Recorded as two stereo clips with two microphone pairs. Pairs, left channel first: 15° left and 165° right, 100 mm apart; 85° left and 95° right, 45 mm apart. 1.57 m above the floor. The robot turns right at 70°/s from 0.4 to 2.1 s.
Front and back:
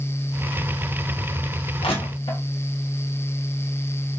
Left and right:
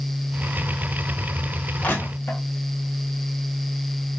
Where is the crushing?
25° left, 1.6 m; by 2.4 s 45° left, 1.6 m.